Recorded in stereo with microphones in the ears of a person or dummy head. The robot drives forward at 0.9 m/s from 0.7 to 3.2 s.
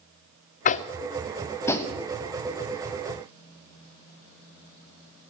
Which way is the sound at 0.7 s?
40° left (ahead or behind).